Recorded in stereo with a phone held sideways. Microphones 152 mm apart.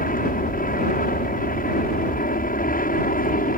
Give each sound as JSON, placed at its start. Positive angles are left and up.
{"t": 0.0, "sound": "an aircraft", "side_deg": 60}